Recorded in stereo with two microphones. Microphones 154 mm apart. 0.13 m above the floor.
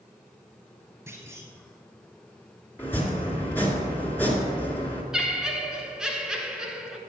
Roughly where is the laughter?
Centre.